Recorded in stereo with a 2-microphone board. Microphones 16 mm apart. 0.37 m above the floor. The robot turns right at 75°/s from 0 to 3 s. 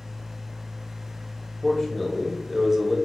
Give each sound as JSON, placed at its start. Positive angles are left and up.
{"t": 1.6, "sound": "a man speaking", "side_deg": 25, "distance_m": 1.0}